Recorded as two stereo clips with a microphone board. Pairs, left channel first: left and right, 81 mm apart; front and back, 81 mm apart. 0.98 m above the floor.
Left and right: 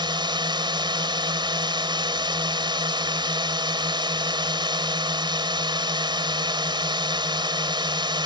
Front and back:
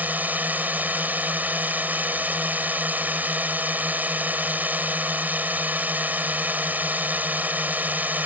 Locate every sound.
0.0 s a drone: 110° right